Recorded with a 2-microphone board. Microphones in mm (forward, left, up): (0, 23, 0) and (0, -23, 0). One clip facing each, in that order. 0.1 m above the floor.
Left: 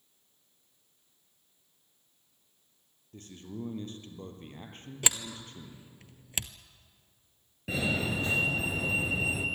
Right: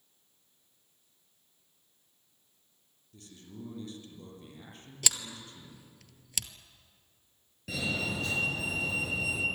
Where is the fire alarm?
25° left (ahead or behind), 2.5 m.